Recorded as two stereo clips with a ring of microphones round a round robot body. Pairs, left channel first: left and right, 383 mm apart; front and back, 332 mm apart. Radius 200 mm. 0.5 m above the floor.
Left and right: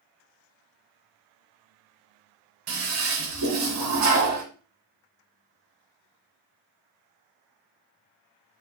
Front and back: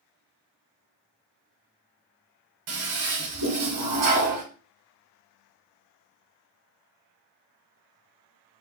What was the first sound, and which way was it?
A toilet flushing, 140° right.